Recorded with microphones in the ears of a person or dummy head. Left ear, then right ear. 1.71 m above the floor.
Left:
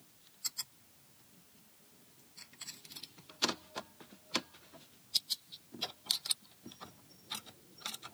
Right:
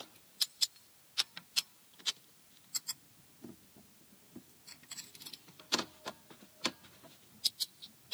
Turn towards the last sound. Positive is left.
No sound to turn to.